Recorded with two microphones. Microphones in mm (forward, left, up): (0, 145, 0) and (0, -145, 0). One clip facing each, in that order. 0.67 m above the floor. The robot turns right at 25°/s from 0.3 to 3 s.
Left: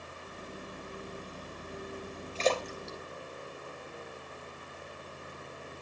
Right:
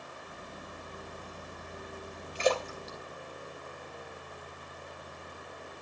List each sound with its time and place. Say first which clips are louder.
2.4 s a splash: right 1 dB; 15° right (ahead or behind), 3 m; by 4.4 s centre (ahead or behind), 3 m